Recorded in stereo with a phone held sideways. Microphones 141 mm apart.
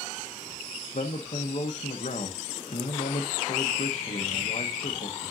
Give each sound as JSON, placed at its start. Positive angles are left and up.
{"t": 0.9, "sound": "a man speaking", "side_deg": 60, "distance_m": 0.9}